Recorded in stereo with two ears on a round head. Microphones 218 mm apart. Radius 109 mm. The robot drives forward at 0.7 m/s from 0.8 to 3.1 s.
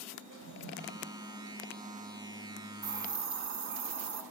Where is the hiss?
50° right (ahead or behind), 1.3 m; by 4.2 s 55° right (ahead or behind), 1.2 m.